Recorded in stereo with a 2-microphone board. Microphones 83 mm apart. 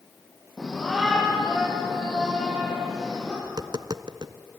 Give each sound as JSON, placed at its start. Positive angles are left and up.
{"t": 0.6, "sound": "a shout", "side_deg": 5, "distance_m": 8.0}
{"t": 3.4, "sound": "tapping", "side_deg": -60, "distance_m": 0.7}